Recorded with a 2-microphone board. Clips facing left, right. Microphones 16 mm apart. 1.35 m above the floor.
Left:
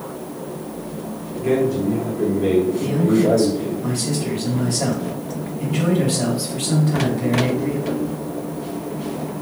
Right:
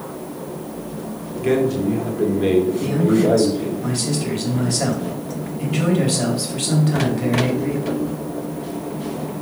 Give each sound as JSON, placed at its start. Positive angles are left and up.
{"t": 1.4, "sound": "a man speaking", "side_deg": -55, "distance_m": 4.0}
{"t": 2.8, "sound": "a man speaking", "side_deg": -20, "distance_m": 4.0}